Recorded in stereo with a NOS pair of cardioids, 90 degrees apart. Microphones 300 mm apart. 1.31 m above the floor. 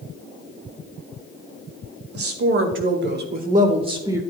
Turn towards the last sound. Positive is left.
turn(degrees=-10)